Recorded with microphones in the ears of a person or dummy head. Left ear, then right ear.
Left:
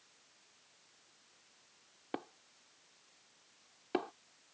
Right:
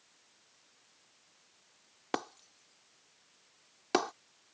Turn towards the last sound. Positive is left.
turn(degrees=-65)  # may be behind; listen again after turning